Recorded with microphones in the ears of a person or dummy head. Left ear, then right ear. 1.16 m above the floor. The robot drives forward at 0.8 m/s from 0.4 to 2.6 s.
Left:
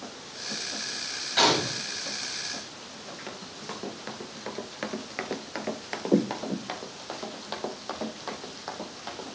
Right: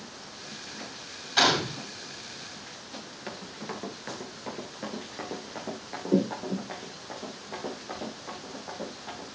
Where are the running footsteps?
5° right (ahead or behind), 1.7 m; by 9.2 s 55° left (ahead or behind), 4 m.